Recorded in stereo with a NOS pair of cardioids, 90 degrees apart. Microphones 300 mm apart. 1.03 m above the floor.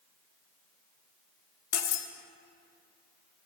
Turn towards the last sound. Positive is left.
turn(degrees=60)